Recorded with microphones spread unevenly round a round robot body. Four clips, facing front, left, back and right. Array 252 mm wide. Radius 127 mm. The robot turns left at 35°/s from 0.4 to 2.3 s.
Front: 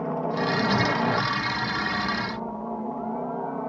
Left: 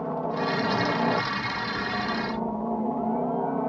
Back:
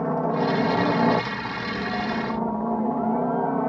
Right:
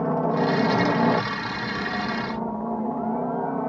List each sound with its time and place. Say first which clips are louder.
0.0 s a helicopter: right 5 dB, back 3 dB; 120° right; by 3.7 s 175° left